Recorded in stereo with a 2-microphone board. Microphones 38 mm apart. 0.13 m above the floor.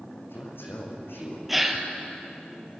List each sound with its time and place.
0.2 s a man speaking: 75° left (ahead or behind), 6 m
1.5 s a gasp: 5° right (ahead or behind), 2 m